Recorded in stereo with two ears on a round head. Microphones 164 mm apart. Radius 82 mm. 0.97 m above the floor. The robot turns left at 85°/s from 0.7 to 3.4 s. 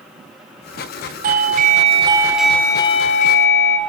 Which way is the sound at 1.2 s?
80° right.